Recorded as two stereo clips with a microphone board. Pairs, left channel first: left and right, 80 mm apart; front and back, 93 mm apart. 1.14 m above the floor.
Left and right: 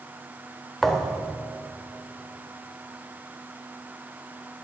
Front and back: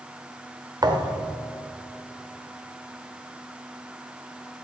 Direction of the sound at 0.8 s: Straight behind.